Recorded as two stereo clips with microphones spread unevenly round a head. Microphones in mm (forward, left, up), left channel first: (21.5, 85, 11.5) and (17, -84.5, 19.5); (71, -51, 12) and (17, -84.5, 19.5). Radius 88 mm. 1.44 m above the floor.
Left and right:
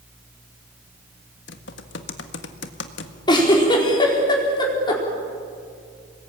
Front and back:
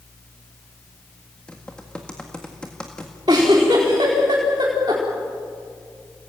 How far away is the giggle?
About 4.5 m.